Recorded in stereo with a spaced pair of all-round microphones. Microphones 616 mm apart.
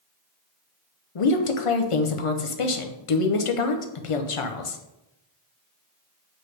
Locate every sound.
1.1 s a woman speaking: 60° left (ahead or behind), 0.6 m